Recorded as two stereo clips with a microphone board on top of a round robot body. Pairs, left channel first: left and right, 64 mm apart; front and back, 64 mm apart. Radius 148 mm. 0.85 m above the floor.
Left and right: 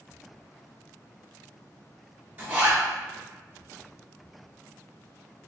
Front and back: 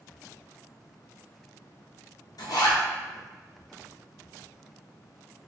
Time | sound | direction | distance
2.4 | a zipper | 25° right | 1.1 m